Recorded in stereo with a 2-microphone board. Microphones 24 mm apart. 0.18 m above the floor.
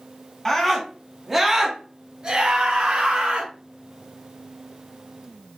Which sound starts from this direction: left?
A scream, at 0.5 s.